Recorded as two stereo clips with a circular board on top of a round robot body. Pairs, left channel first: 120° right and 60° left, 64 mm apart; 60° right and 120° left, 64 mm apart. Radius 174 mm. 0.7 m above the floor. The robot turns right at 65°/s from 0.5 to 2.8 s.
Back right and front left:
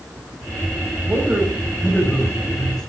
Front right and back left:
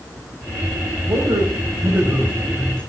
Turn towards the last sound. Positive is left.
turn(degrees=-140)